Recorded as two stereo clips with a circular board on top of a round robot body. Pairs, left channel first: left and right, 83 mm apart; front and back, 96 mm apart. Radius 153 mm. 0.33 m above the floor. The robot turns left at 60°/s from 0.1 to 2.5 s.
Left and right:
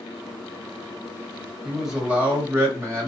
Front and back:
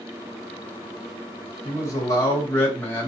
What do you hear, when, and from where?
1.6 s a man speaking: straight ahead, 1.8 m; by 3.1 s 50° right, 1.8 m